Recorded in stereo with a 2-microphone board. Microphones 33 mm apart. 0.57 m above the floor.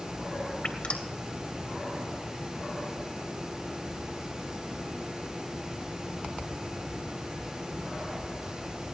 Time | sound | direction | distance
0.6 | dripping | 45° left (ahead or behind) | 2.5 m